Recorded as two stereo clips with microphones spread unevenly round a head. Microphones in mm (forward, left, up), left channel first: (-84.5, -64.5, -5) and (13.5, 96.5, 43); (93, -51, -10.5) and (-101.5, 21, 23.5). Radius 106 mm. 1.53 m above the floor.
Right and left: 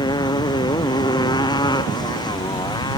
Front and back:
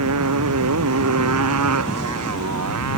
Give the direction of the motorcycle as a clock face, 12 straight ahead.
6 o'clock.